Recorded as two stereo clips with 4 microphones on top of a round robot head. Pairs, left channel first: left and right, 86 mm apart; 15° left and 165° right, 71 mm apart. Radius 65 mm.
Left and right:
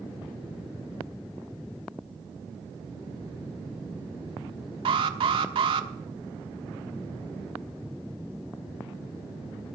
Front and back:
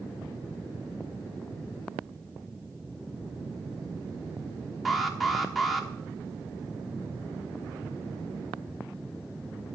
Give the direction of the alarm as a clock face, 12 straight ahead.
3 o'clock.